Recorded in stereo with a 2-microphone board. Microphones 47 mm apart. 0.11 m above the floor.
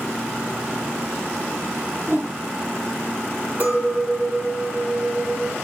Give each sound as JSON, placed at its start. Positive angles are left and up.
{"t": 2.1, "sound": "a whoosh", "side_deg": -50, "distance_m": 1.5}
{"t": 3.6, "sound": "a clink", "side_deg": -40, "distance_m": 1.3}